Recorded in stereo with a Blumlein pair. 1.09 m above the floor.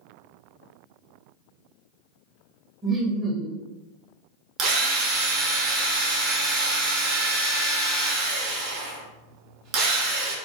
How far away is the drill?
About 0.6 m.